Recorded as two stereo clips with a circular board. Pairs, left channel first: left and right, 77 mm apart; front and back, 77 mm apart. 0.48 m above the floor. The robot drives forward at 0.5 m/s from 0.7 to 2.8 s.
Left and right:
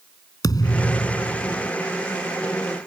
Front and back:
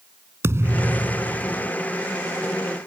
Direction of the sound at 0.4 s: 125° left.